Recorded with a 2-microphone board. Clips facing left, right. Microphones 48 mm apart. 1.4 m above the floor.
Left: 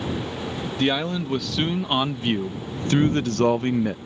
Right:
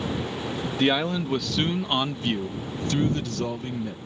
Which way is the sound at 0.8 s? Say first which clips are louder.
Even; 5° right (ahead or behind).